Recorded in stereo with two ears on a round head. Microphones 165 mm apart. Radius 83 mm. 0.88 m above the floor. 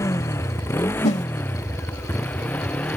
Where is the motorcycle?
15° left (ahead or behind); by 3.0 s 5° left (ahead or behind).